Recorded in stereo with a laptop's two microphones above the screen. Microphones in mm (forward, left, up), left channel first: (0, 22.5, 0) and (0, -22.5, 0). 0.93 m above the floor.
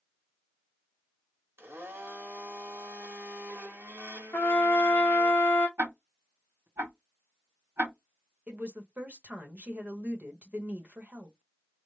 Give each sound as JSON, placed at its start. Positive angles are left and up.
{"t": 1.6, "sound": "a blender", "side_deg": -55, "distance_m": 1.2}
{"t": 4.3, "sound": "a trumpet", "side_deg": 50, "distance_m": 0.7}
{"t": 5.8, "sound": "ticking", "side_deg": -75, "distance_m": 1.0}
{"t": 8.5, "sound": "a woman speaking", "side_deg": -40, "distance_m": 1.0}